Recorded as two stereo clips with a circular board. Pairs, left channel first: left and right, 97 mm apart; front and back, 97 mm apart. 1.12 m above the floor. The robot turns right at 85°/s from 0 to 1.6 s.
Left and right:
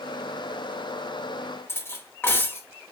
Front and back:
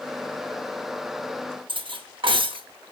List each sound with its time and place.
1.7 s cutlery clinking: 155° left, 0.8 m